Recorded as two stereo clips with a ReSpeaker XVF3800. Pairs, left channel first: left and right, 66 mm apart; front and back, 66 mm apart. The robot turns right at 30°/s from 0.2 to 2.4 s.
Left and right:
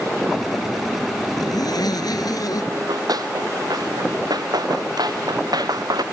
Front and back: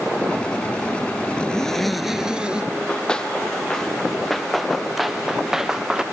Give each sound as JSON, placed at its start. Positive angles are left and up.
{"t": 1.4, "sound": "a zipper", "azimuth_deg": 75}
{"t": 2.7, "sound": "running footsteps", "azimuth_deg": -75}